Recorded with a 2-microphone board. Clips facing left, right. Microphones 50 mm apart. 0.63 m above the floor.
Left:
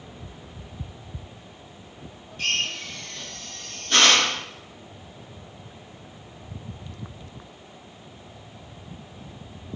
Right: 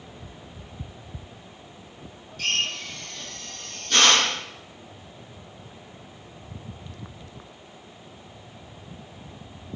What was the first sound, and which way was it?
A drill, 25° left (ahead or behind).